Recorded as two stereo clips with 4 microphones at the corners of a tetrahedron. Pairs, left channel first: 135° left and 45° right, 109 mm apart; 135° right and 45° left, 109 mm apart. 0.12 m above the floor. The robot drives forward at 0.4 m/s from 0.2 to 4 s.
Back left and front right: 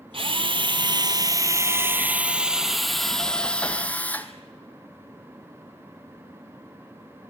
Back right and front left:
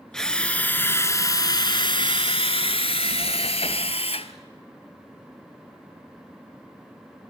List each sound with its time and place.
0.1 s a drill: 50° right, 0.9 m; by 4.3 s 150° right, 1.3 m